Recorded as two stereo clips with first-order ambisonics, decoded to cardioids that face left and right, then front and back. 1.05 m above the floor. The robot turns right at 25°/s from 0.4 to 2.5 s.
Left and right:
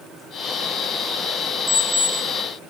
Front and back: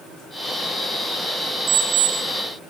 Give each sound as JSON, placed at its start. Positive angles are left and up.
{"t": 1.7, "sound": "an alarm clock", "azimuth_deg": -150, "distance_m": 0.8}